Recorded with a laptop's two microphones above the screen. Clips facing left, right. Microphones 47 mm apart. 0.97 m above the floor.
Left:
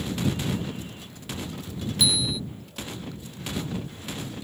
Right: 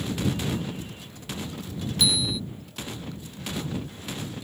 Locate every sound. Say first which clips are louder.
2.0 s a bicycle bell: even; 5° left (ahead or behind)